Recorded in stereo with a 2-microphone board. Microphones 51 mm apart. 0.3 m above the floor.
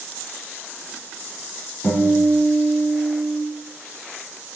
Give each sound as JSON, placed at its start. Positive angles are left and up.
{"t": 1.8, "sound": "a guitar", "side_deg": 45, "distance_m": 3.5}